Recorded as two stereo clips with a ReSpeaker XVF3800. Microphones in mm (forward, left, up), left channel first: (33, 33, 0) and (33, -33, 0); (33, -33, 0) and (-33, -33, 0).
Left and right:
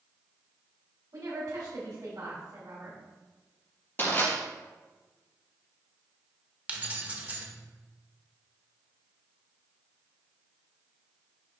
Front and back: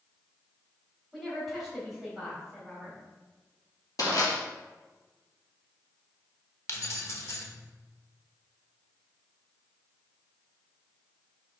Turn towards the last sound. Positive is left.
turn(degrees=-30)